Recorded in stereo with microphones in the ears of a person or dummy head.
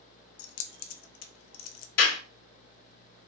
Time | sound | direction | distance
0.4 | keys jangling | 80° left | 0.8 m
2.0 | a clap | 55° left (ahead or behind) | 2.5 m